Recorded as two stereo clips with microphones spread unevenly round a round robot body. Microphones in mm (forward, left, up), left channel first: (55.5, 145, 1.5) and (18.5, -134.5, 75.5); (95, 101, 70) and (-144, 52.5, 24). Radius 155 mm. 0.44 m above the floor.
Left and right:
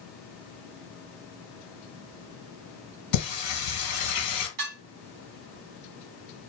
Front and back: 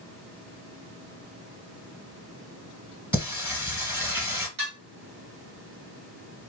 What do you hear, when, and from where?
3.1 s singing: 110° left, 1.5 m
4.6 s dishes clattering: 130° right, 1.1 m